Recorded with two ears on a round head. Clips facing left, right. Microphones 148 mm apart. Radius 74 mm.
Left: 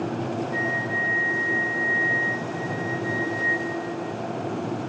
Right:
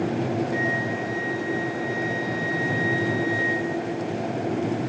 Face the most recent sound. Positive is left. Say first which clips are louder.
# right 2 dB
turn(degrees=-40)  # may be behind; listen again after turning